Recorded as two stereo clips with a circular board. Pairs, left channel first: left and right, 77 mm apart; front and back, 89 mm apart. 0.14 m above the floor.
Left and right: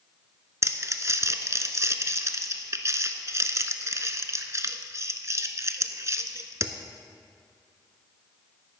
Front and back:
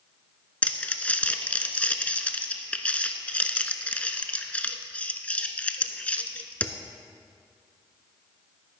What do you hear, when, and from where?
0.6 s crumpling: 65° right, 0.6 m